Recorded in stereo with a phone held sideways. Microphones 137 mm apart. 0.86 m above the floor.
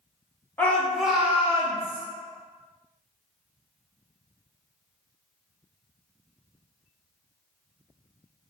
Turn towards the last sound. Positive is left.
turn(degrees=-30)  # may be behind; listen again after turning